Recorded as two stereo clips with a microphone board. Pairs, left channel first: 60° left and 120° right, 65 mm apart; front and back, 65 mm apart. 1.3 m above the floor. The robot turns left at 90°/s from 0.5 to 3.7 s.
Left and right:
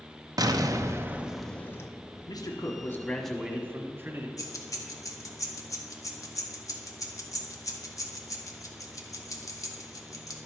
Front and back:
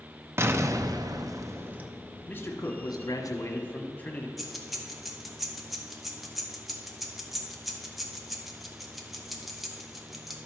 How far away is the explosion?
About 0.6 m.